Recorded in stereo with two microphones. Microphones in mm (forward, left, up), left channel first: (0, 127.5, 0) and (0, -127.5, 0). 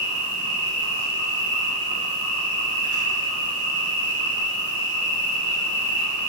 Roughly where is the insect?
Right.